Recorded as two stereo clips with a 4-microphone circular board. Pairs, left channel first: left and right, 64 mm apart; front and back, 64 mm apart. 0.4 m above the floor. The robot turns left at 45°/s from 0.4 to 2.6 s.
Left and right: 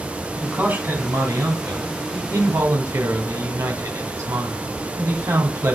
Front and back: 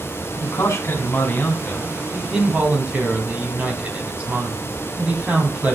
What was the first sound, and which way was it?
A man speaking, 15° right.